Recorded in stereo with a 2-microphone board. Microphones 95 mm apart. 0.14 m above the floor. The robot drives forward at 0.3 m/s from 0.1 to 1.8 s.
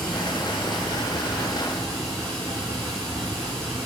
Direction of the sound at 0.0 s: 5° left (ahead or behind).